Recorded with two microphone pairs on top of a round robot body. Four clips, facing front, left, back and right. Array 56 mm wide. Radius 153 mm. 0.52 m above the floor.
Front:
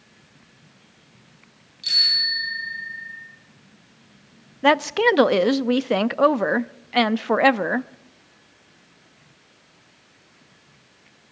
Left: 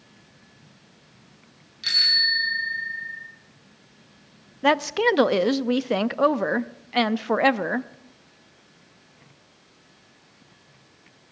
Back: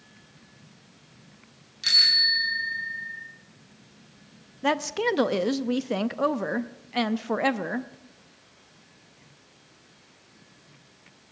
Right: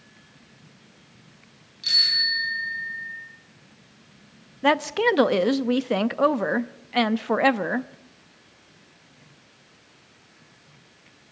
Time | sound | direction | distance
1.8 | a bicycle bell | 150° left | 5 m
4.6 | a woman speaking | 5° right | 0.7 m